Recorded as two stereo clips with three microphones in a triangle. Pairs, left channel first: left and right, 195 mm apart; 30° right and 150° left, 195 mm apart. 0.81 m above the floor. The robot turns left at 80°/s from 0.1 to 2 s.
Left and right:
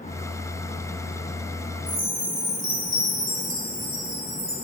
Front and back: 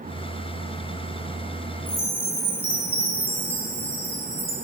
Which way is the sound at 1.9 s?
80° right.